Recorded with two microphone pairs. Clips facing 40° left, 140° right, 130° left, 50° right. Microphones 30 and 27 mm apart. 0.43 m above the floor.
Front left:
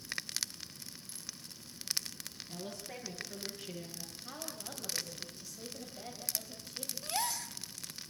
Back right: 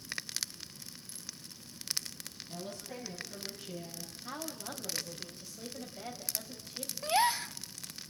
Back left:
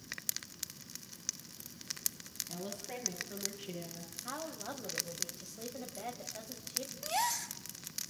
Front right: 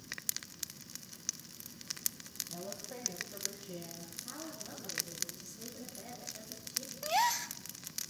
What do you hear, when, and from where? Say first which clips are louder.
2.5 s a woman speaking: back right 2 dB, back left 4 dB; 105° left, 6.5 m
4.2 s a woman speaking: back right 5 dB, back left 6 dB; 140° left, 2.5 m
7.0 s a gasp: back right 9 dB, front right 4 dB; 110° right, 0.5 m